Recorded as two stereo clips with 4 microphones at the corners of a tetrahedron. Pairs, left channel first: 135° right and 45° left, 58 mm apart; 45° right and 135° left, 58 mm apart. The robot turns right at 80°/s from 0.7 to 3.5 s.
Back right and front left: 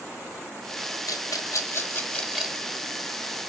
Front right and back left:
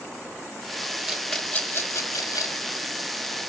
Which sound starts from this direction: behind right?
A rattle, at 1.1 s.